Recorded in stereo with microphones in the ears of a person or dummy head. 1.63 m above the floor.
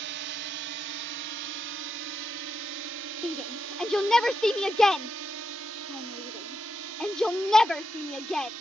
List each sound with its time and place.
0.0 s a drone: 55° right (ahead or behind); by 8.6 s 75° right (ahead or behind)
3.2 s a shout: centre (ahead or behind)